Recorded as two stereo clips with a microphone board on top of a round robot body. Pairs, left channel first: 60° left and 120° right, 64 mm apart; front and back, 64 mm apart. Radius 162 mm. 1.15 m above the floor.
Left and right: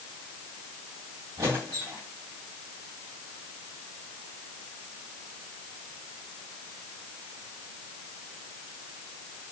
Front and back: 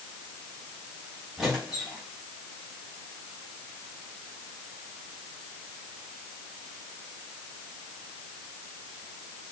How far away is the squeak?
About 0.8 m.